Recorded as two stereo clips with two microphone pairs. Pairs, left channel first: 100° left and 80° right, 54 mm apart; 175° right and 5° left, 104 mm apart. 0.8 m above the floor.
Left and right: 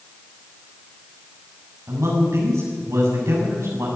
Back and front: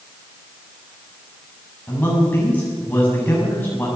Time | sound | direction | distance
1.9 | a man speaking | 105° right | 7 m